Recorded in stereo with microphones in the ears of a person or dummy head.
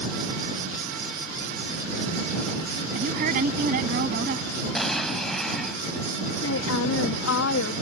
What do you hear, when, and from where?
2.9 s a woman speaking: 55° right (ahead or behind)
4.8 s an explosion: centre (ahead or behind)
6.4 s a woman speaking: 80° left